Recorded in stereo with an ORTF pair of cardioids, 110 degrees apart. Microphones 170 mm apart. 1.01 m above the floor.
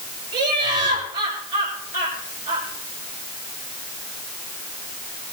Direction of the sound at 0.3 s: 50° right.